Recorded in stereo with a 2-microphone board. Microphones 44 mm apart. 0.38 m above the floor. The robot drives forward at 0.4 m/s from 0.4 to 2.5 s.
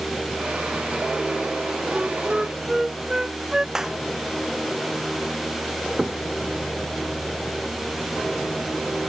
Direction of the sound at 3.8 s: 10° right (ahead or behind).